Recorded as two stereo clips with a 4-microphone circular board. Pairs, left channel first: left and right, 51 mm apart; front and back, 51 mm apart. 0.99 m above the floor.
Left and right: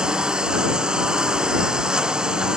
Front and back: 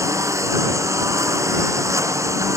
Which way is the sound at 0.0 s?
165° right.